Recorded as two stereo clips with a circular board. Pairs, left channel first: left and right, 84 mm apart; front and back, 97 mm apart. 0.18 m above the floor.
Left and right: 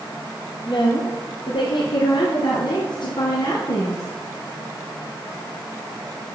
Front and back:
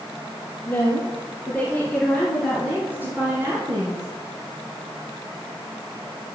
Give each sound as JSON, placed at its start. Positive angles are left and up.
{"t": 0.7, "sound": "a woman speaking", "azimuth_deg": 75, "distance_m": 3.5}